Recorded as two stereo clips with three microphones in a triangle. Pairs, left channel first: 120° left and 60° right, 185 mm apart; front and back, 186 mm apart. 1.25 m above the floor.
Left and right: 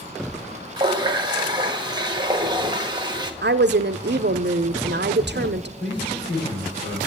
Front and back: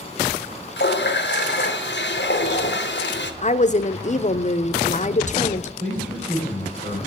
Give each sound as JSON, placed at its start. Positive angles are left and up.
{"t": 0.8, "sound": "a running tap", "azimuth_deg": 5, "distance_m": 1.1}
{"t": 3.4, "sound": "a woman speaking", "azimuth_deg": -45, "distance_m": 0.6}
{"t": 5.8, "sound": "a man speaking", "azimuth_deg": 135, "distance_m": 5.5}